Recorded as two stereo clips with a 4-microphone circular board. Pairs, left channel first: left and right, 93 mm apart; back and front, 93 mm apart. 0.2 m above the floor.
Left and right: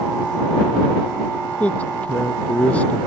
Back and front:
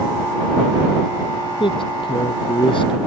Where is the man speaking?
165° left.